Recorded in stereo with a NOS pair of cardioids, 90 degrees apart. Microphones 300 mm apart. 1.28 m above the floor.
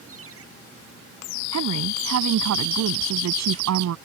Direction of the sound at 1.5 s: 60° right.